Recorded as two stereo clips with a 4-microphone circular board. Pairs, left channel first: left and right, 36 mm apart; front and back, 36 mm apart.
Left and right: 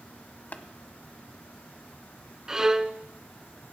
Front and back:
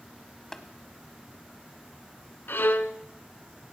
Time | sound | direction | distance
0.5 | tapping | 75° left | 1.0 m
2.5 | a violin | 15° right | 0.6 m